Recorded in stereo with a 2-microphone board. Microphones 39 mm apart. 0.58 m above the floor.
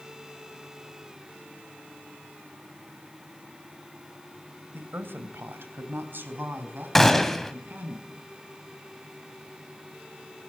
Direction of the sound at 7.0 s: 5° left (ahead or behind).